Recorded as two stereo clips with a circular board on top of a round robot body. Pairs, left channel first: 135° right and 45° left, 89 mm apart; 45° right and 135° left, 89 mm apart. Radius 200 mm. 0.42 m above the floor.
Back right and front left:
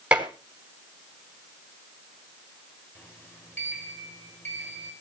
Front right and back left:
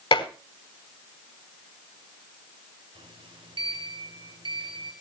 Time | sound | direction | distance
0.1 | dishes clattering | 35° right | 3.5 m
3.0 | a sliding door | 160° left | 6 m